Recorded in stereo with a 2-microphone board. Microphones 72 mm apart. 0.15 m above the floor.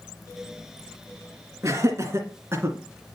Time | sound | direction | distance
1.6 | laughter | 45° right (ahead or behind) | 2.5 m